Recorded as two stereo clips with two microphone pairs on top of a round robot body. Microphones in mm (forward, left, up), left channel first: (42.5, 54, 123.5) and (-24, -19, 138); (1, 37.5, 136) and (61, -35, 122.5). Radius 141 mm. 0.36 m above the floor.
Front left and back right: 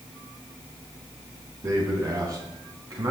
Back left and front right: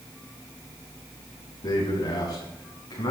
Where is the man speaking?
175° left, 3.5 m.